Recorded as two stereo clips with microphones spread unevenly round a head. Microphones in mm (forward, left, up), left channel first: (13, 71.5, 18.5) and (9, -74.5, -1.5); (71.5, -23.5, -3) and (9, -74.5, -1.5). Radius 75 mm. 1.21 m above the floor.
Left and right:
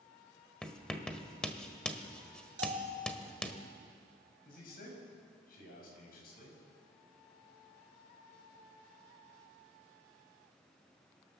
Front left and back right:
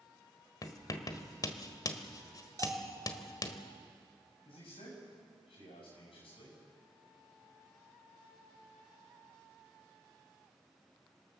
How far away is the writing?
About 1.5 m.